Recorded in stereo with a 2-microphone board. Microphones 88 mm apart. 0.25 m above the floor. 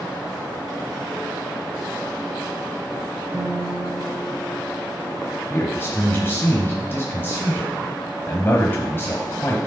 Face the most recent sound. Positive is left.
turn(degrees=30)  # may be behind; listen again after turning